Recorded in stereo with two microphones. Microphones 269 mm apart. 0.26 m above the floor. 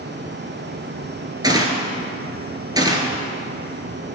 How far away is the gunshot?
About 1.0 m.